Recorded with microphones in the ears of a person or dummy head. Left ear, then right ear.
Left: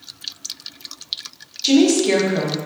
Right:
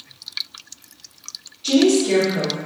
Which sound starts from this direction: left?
A woman speaking, at 1.6 s.